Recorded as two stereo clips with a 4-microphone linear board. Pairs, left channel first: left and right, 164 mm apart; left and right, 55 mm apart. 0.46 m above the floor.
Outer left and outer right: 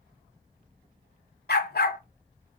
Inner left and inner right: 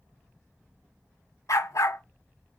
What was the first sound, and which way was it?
A dog barking, 75° left (ahead or behind).